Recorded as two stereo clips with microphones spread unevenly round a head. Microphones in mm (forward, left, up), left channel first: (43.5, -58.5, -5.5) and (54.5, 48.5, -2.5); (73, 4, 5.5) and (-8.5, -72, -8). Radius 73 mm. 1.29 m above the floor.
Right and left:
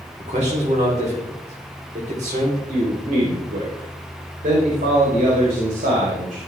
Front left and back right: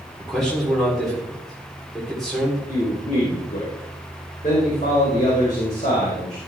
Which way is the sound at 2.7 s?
90° left.